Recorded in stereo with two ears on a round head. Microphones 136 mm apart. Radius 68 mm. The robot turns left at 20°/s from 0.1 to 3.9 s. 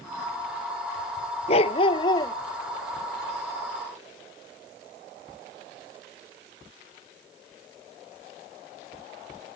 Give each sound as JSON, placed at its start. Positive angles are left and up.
{"t": 1.5, "sound": "a dog barking", "side_deg": 45}